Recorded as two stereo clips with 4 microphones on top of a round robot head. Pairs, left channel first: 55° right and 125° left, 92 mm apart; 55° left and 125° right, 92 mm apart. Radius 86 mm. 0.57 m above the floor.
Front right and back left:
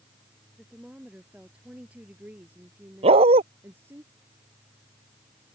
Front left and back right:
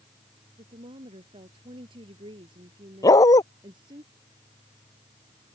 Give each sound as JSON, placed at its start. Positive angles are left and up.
{"t": 0.6, "sound": "a woman speaking", "azimuth_deg": -150}
{"t": 3.0, "sound": "a dog barking", "azimuth_deg": 110}